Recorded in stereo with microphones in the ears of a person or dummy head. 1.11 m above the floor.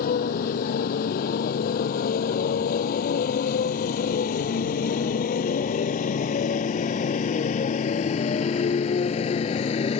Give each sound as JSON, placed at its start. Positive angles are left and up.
{"t": 0.0, "sound": "a motorcycle", "side_deg": 50}